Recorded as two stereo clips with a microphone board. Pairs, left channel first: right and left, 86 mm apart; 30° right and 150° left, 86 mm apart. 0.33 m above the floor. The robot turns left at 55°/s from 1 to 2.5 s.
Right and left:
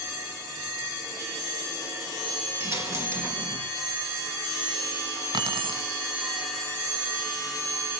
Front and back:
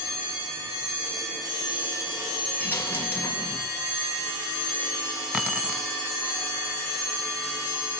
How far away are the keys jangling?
About 1.7 m.